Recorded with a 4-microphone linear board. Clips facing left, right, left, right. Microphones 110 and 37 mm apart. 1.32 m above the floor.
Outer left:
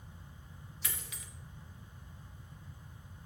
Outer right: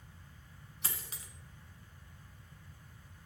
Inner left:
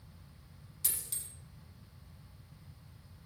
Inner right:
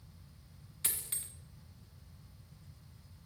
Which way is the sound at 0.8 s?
40° right (ahead or behind).